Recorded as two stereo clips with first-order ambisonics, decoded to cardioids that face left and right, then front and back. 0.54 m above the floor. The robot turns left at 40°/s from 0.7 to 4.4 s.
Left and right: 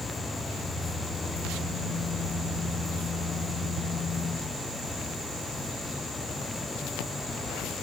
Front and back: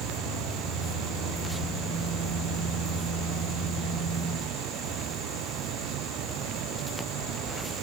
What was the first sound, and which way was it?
Only background noise.